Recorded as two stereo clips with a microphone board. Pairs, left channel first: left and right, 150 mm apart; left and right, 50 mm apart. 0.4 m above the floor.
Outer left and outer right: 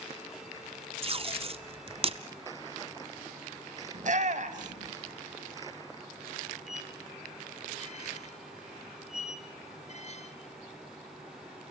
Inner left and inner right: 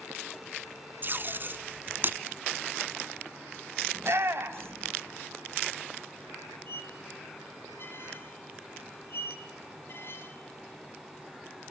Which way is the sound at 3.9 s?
55° right (ahead or behind).